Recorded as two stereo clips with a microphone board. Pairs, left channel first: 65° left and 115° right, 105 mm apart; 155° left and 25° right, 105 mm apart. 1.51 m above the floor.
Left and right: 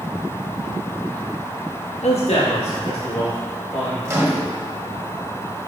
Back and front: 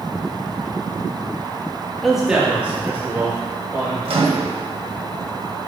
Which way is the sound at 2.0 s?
70° left.